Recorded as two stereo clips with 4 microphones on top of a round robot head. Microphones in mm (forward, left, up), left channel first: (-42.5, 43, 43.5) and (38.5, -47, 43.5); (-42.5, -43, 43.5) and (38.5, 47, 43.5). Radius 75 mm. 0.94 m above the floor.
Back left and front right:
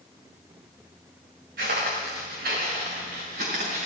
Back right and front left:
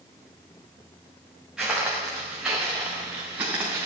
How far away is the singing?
I don't hear singing.